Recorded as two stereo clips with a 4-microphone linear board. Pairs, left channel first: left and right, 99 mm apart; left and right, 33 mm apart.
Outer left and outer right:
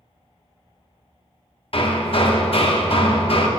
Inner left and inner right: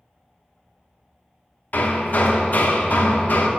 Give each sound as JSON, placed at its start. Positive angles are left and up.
{"t": 1.7, "sound": "hammering", "side_deg": 60, "distance_m": 0.7}